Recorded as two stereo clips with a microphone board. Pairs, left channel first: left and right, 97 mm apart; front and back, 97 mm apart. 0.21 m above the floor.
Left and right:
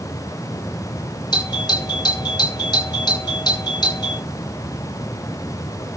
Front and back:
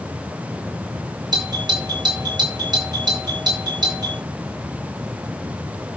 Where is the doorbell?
135° left, 8 m.